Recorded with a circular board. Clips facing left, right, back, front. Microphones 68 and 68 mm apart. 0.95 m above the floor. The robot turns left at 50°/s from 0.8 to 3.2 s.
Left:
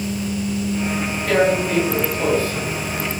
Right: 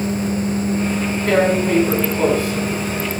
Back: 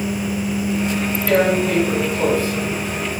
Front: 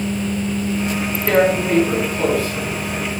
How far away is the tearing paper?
About 1.4 m.